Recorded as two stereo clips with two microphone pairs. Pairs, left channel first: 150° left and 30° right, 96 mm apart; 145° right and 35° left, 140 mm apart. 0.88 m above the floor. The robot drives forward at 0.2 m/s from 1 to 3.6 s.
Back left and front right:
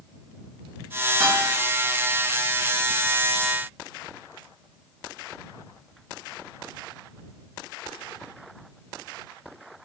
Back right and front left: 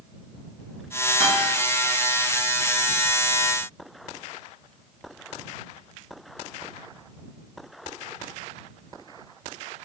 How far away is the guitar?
About 1.3 m.